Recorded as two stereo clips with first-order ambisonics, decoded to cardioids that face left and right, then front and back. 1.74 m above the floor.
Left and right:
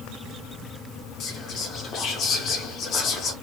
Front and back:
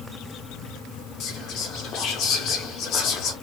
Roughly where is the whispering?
Ahead left.